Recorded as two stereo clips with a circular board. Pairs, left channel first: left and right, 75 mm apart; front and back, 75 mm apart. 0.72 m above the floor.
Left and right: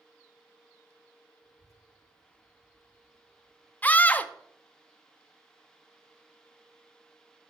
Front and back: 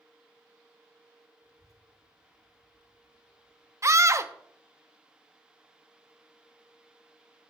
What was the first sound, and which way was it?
A child speaking, 50° left.